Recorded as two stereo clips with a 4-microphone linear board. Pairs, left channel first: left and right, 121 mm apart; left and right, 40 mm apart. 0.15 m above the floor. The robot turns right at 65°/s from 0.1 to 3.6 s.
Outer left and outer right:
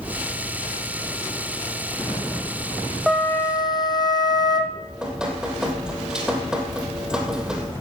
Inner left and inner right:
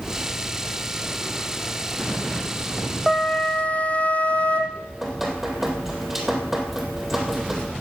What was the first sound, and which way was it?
A flute, straight ahead.